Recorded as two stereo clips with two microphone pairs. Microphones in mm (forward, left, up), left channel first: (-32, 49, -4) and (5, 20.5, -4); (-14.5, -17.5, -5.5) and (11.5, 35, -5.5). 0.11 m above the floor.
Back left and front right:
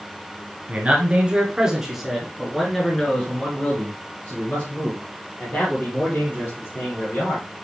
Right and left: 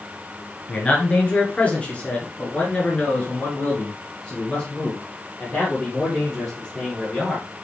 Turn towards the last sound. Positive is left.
turn(degrees=170)